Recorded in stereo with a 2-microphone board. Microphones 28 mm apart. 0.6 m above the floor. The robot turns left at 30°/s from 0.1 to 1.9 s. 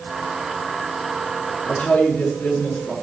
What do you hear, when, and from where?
1.6 s a woman speaking: 80° left, 6.5 m